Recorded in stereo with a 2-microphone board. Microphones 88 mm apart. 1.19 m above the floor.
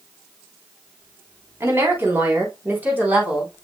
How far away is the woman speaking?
About 3.5 m.